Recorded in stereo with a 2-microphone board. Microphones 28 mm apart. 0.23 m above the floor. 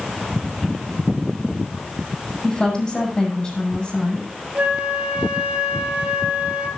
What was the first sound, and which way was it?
A woman speaking, 25° left (ahead or behind).